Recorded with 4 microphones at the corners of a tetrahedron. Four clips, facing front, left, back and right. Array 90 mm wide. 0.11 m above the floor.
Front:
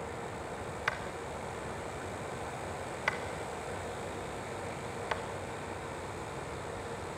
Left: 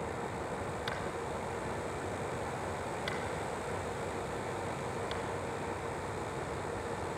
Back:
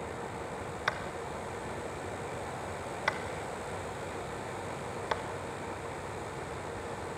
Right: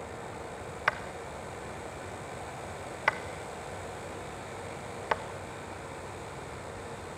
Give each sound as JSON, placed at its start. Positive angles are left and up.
{"t": 0.9, "sound": "tapping", "azimuth_deg": -110, "distance_m": 1.7}